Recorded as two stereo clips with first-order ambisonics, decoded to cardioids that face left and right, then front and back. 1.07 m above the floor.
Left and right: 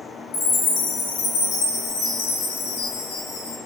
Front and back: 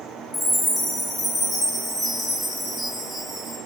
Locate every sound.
0.3 s a chime: 85° left, 0.8 m